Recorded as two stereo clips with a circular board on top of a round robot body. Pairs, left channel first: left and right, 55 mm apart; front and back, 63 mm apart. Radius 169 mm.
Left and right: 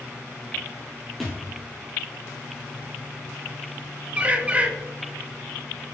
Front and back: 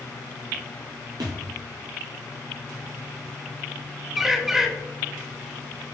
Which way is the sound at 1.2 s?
175° left.